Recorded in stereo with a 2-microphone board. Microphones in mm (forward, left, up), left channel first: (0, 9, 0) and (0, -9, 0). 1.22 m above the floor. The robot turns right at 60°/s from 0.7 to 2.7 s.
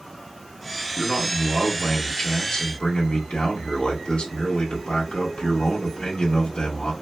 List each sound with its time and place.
1.0 s a man speaking: 10° right, 1.7 m; by 6.9 s 95° left, 1.7 m